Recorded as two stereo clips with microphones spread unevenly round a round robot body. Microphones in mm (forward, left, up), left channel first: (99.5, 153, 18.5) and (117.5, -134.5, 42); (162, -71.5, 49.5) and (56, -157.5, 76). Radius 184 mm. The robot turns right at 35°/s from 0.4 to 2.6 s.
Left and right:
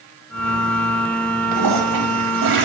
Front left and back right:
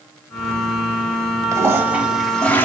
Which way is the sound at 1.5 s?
85° right.